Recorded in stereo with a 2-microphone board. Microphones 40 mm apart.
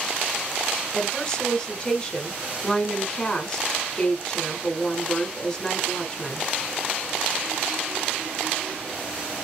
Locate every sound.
0.9 s a woman speaking: 15° left (ahead or behind), 1.8 m